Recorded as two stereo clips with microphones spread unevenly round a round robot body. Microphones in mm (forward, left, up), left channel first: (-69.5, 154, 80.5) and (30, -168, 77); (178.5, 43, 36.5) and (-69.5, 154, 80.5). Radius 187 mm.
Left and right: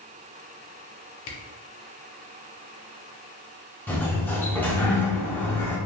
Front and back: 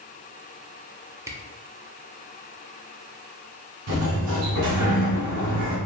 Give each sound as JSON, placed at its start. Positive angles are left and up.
{"t": 1.3, "sound": "a camera shutter", "azimuth_deg": 75, "distance_m": 0.6}
{"t": 3.9, "sound": "a sliding door", "azimuth_deg": -170, "distance_m": 0.6}